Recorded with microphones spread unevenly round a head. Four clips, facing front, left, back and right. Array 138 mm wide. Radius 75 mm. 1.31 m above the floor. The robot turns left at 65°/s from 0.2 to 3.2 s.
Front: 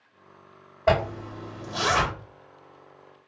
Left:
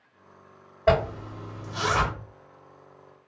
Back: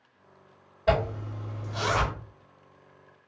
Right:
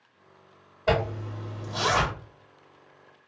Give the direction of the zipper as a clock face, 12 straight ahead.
11 o'clock.